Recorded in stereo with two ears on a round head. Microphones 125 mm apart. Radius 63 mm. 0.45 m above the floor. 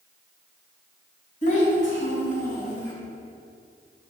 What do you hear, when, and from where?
1.4 s a child speaking: 55° left (ahead or behind), 2 m; by 2.9 s 65° left (ahead or behind), 3 m